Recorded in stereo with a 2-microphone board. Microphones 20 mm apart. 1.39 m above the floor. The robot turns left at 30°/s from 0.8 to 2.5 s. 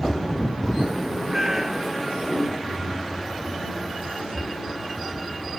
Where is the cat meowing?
25° right (ahead or behind); by 2.1 s centre (ahead or behind).